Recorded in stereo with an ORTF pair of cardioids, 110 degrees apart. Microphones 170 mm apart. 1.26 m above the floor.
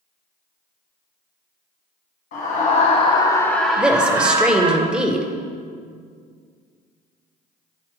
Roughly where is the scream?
Ahead left.